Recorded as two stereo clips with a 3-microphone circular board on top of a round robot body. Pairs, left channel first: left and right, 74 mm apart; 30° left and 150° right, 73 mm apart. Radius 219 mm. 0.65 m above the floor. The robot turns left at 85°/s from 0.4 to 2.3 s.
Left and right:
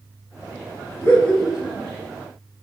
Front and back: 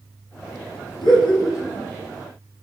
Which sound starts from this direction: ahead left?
Laughter, at 1.0 s.